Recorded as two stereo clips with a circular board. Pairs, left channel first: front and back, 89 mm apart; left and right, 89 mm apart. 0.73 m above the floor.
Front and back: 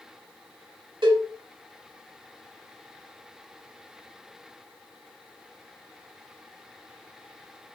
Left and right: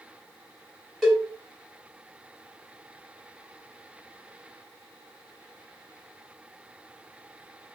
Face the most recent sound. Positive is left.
turn(degrees=175)